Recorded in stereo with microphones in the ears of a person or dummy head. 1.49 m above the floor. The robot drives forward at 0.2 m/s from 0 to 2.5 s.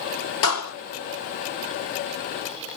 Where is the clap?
75° left (ahead or behind), 3 m.